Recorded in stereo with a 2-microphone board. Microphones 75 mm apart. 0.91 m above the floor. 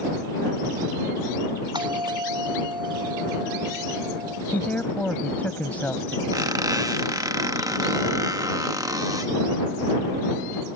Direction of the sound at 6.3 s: 55° right (ahead or behind).